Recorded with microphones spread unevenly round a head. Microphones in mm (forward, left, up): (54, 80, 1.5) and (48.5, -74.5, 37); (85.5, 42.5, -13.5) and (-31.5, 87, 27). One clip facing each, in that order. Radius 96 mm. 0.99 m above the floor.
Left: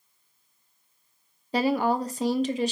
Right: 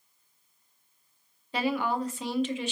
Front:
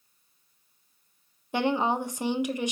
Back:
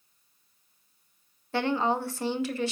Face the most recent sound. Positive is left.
turn(degrees=45)